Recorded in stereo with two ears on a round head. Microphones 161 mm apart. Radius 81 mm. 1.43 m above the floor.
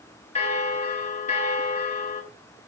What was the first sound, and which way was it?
A bell, 35° left (ahead or behind).